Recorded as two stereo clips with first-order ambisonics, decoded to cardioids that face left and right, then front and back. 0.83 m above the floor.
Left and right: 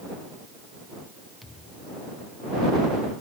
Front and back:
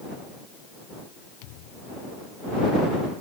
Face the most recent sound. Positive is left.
turn(degrees=10)